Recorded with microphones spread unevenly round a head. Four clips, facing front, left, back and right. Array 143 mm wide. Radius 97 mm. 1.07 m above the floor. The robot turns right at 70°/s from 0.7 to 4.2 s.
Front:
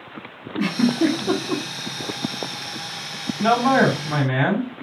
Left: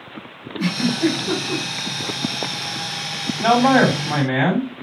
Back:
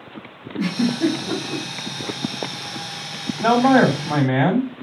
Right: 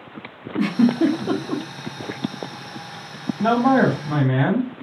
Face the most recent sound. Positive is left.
turn(degrees=160)